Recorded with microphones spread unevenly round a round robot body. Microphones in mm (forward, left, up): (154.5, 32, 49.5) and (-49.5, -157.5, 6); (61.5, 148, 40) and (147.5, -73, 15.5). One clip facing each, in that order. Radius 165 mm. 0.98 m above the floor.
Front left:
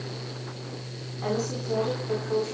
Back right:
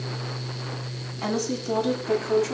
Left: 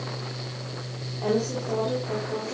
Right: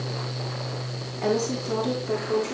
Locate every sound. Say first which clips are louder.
1.2 s a woman speaking: back right 2 dB, right 1 dB; 140° right, 9 m; by 2.5 s 135° right, 9 m